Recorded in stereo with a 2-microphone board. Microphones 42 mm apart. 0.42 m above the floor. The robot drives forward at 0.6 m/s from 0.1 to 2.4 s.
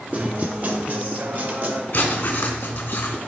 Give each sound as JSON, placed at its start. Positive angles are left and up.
{"t": 0.1, "sound": "a guitar", "side_deg": -35, "distance_m": 1.9}
{"t": 1.9, "sound": "writing", "side_deg": 40, "distance_m": 2.5}